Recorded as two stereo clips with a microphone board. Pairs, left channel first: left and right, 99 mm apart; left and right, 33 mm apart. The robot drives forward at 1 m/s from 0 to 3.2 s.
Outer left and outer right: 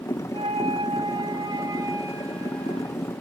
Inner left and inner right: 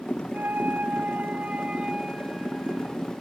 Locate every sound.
0.3 s a flute: 75° right (ahead or behind), 1.0 m; by 3.1 s 20° right (ahead or behind), 2.5 m